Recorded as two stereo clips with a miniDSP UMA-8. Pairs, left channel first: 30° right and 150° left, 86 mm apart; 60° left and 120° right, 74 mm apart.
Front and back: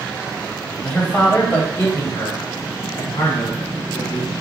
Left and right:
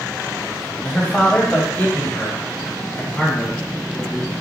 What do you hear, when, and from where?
0.8 s a man speaking: 20° left, 1.2 m; by 4.3 s 5° right, 2.5 m